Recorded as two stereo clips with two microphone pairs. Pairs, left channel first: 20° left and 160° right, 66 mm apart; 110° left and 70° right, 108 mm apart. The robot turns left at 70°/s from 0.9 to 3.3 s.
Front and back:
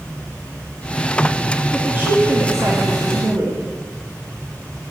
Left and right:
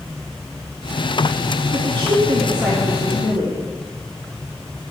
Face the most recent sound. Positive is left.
turn(degrees=165)